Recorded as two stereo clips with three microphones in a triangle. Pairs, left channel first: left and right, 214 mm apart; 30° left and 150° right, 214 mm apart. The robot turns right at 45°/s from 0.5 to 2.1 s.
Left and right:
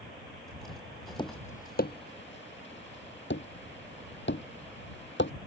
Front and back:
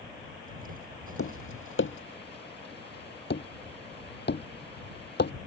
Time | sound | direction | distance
1.2 | tapping | 20° left | ?